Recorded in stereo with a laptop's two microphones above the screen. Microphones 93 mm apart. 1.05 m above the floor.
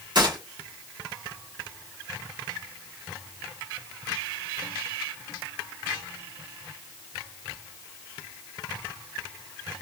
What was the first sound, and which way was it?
A gunshot, 50° right (ahead or behind).